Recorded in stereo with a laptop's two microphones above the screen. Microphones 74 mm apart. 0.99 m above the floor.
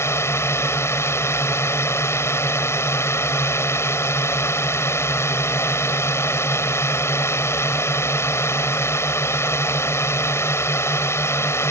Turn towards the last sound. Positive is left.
turn(degrees=35)  # may be behind; listen again after turning